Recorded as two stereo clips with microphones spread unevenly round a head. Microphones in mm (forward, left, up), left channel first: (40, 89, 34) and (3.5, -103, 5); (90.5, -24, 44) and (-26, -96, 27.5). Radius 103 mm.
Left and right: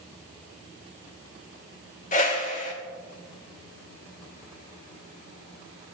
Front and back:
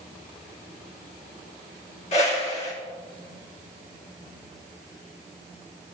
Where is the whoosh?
55° left, 1.8 m.